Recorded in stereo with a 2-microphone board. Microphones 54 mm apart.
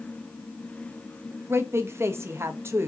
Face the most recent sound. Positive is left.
turn(degrees=-45)  # may be behind; listen again after turning